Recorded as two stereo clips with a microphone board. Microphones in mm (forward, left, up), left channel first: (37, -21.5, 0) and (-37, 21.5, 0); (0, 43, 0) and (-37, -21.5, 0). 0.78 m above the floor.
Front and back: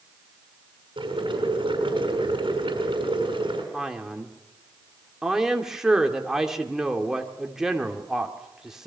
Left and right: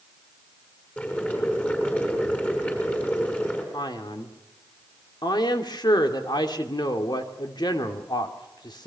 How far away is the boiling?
About 5.5 m.